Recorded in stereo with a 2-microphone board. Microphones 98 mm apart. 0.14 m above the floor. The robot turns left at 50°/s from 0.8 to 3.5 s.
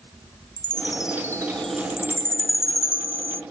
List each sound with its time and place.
0.6 s a chime: 50° left; by 3.4 s 80° right